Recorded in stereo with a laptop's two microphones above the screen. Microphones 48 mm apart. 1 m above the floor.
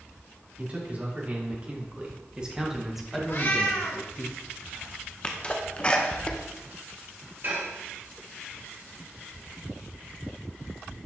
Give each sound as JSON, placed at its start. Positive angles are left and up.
{"t": 0.6, "sound": "a man speaking", "side_deg": -35, "distance_m": 3.0}
{"t": 3.3, "sound": "a cat meowing", "side_deg": 55, "distance_m": 2.0}
{"t": 5.2, "sound": "a sneeze", "side_deg": 25, "distance_m": 0.7}
{"t": 7.4, "sound": "dishes clattering", "side_deg": -55, "distance_m": 3.0}